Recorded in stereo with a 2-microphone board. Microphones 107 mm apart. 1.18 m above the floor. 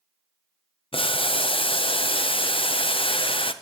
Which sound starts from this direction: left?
Boiling, at 0.9 s.